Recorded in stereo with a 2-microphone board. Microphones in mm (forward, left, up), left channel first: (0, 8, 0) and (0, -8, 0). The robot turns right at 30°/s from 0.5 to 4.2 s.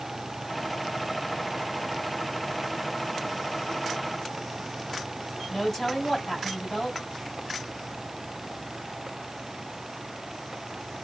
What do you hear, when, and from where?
5.5 s a woman speaking: 30° left (ahead or behind), 1.8 m